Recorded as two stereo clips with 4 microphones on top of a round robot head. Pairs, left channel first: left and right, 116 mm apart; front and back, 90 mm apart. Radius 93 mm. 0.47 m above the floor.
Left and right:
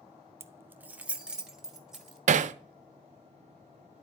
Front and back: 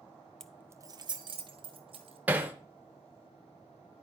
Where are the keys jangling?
75° right, 0.6 m; by 2.2 s straight behind, 2 m.